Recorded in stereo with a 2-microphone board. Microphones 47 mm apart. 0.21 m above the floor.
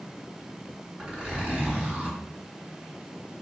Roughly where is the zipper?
Centre.